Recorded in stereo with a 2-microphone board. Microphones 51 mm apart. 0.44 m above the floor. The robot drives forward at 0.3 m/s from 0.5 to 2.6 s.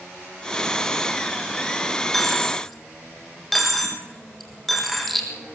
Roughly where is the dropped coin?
Centre.